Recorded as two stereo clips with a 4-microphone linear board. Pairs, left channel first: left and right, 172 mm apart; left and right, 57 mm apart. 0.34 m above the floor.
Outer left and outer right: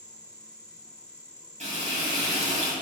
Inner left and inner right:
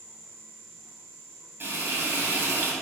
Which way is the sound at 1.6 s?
45° right (ahead or behind).